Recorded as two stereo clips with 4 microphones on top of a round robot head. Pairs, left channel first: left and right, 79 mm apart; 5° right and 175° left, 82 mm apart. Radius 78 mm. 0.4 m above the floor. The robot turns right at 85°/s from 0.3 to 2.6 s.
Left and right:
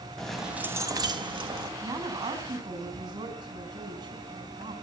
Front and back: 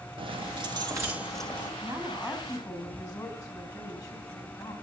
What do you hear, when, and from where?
0.2 s keys jangling: 175° left, 2.5 m; by 1.7 s 65° right, 2.5 m
1.8 s a woman speaking: 125° right, 4 m; by 4.7 s 55° right, 4 m